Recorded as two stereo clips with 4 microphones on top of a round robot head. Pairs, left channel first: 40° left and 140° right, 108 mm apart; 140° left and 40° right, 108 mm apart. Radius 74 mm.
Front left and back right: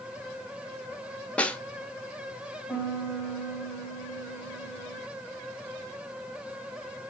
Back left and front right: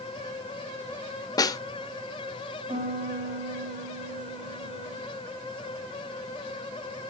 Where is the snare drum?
115° left, 1.2 m.